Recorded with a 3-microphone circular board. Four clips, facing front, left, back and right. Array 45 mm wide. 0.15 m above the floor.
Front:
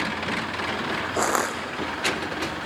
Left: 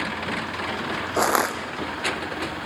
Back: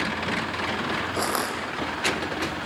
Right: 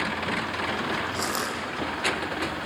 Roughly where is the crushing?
Left.